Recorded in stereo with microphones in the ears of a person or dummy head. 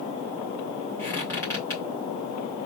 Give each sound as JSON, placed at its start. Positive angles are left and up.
{"t": 1.0, "sound": "a squeak", "side_deg": 15, "distance_m": 2.5}